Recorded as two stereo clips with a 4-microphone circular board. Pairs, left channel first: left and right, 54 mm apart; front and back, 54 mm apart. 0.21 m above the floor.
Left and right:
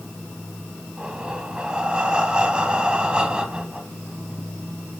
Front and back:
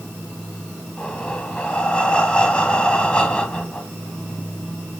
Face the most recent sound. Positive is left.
turn(degrees=-40)